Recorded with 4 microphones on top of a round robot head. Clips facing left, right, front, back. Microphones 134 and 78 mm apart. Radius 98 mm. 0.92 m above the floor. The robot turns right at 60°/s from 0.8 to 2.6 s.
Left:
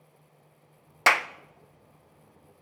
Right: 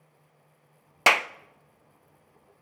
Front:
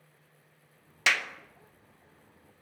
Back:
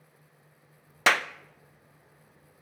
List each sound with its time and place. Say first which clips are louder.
1.1 s a clap: right 1 dB, back 5 dB; 155° right, 0.6 m; by 1.3 s 140° right, 0.6 m